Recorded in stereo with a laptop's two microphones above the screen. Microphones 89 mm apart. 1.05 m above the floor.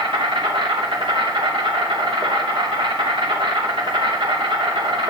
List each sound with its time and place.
0.0 s an insect: 80° right, 3 m